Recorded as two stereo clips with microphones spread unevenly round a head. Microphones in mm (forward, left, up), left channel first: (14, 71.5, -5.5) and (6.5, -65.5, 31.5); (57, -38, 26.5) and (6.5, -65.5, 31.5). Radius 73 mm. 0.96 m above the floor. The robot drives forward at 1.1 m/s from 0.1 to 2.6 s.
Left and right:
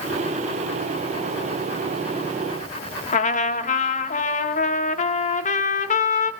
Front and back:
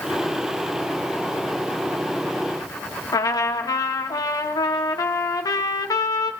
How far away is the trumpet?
About 0.8 m.